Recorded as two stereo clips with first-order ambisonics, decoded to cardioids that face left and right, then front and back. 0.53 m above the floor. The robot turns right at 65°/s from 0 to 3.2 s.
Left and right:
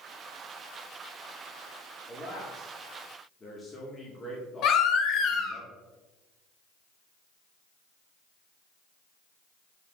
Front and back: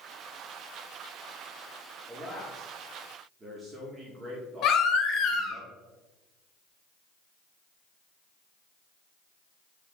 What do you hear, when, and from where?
2.1 s a man speaking: 60° left, 0.9 m; by 5.6 s 130° left, 0.9 m
4.6 s a baby crying: 45° left, 0.7 m